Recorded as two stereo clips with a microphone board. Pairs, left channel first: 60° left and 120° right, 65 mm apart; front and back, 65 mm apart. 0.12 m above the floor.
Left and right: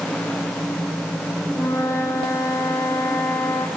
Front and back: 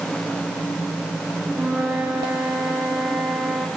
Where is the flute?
100° left, 3.5 m.